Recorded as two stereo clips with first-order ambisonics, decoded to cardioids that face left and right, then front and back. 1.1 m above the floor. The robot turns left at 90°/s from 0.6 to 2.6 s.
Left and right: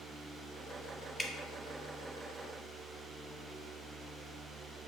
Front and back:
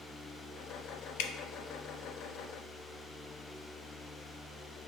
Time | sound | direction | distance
1.2 | dripping | 5° left | 0.6 m